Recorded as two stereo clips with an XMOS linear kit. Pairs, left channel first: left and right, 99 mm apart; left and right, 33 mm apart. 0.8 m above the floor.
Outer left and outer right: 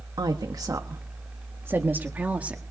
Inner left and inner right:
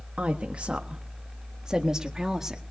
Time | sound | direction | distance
0.2 | a woman speaking | 45° right (ahead or behind) | 1.3 m